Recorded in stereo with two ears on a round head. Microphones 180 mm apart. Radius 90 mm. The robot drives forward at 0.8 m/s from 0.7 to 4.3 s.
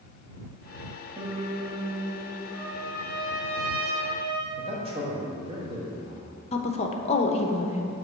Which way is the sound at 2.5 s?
45° right (ahead or behind).